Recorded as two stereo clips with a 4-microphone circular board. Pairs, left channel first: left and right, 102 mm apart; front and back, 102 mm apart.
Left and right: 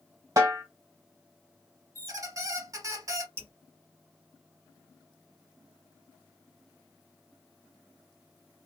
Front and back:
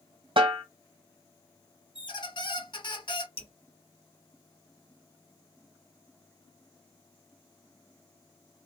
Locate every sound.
0.4 s a snare drum: 145° right, 1.2 m
1.9 s a squeak: 35° right, 0.8 m
3.4 s dripping: 20° right, 1.2 m